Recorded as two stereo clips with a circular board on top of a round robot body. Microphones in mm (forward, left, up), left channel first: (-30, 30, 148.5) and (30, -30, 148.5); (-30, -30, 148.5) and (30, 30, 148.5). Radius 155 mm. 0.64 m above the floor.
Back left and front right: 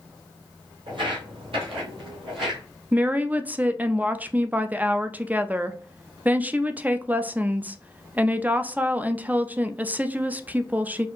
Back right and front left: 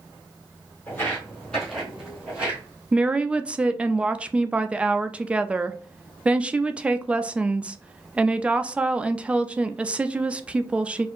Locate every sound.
0.9 s footsteps: 65° right, 1.6 m; by 2.6 s 30° right, 1.7 m
2.9 s a woman speaking: 10° right, 0.6 m